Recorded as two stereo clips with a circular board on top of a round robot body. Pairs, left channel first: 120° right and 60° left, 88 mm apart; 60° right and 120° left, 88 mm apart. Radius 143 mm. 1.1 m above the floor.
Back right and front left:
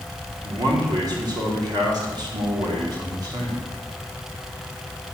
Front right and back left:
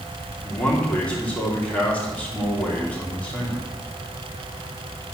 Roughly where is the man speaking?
Ahead.